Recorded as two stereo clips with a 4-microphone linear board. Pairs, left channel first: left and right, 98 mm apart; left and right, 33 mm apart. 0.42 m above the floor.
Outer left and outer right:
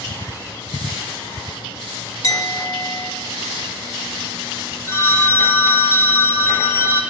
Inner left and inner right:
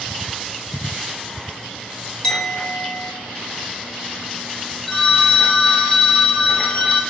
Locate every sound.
2.2 s a clink: 30° left (ahead or behind), 0.8 m
4.9 s a phone ringing: 30° left (ahead or behind), 0.8 m